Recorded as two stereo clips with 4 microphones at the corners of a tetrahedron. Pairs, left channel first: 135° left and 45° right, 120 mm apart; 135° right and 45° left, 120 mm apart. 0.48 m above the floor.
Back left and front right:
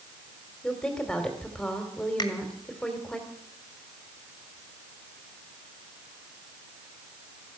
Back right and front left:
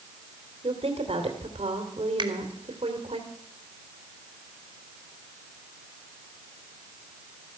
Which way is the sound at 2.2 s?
90° left.